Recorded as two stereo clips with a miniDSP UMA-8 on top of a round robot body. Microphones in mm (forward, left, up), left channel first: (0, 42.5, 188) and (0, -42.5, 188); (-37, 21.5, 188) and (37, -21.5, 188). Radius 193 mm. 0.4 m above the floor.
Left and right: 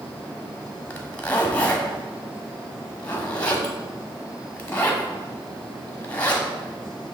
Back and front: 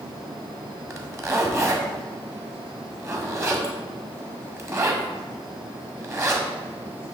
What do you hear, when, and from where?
0.9 s a zipper: 20° left, 1.7 m